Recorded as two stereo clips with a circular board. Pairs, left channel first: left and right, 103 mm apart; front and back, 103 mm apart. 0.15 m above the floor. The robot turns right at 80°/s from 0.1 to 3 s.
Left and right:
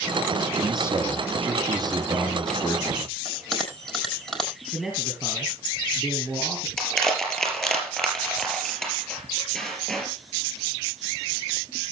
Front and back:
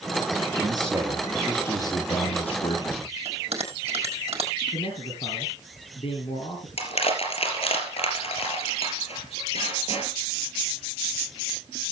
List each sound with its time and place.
0.6 s a man speaking: 145° right, 3 m; by 3.1 s 50° left, 3 m
3.2 s a bell: 175° left, 4 m
4.7 s a man speaking: 10° left, 3 m
6.8 s crushing: 10° left, 4 m